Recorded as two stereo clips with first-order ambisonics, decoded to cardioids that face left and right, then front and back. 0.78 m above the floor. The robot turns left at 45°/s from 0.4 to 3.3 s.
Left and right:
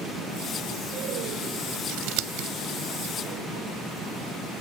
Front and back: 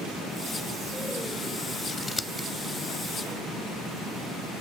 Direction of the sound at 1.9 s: 70° right.